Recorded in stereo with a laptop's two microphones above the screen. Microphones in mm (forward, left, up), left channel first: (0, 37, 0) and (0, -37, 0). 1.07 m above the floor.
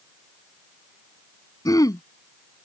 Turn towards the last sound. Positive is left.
turn(degrees=60)  # may be behind; listen again after turning